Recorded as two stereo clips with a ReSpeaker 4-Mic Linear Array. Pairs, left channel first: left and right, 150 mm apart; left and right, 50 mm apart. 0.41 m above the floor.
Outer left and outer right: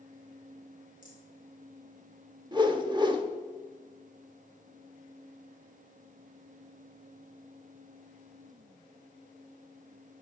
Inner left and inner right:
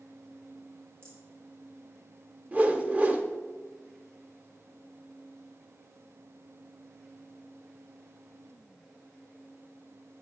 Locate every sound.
1.0 s a rattle: 60° right (ahead or behind), 2.5 m
2.5 s a whoosh: 30° right (ahead or behind), 0.6 m